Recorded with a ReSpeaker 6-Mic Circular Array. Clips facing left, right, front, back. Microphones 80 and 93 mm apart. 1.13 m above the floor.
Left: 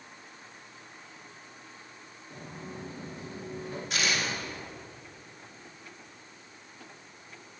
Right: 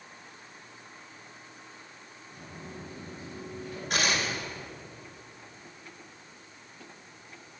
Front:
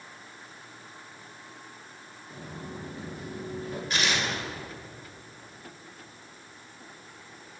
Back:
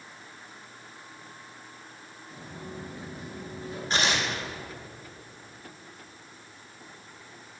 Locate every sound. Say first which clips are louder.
2.3 s footsteps: left 2 dB, front 1 dB; 40° left, 6 m; by 3.8 s 35° left, 7 m
3.9 s tearing paper: right 2 dB, back 2 dB; 125° right, 3 m